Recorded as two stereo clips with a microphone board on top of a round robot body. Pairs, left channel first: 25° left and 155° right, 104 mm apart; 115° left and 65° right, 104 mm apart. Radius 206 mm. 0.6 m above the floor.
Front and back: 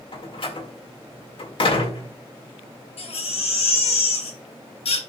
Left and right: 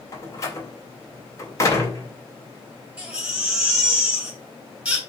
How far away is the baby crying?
About 3 m.